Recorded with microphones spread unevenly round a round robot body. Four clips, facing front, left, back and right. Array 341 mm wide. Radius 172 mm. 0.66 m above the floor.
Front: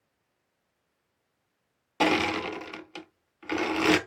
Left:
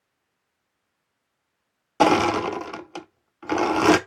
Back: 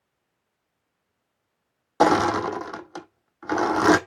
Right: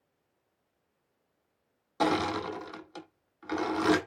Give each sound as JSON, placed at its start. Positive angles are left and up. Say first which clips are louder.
{"t": 2.0, "sound": "crushing", "louder": "left 10 dB, back 7 dB", "azimuth_deg": 120, "distance_m": 0.9}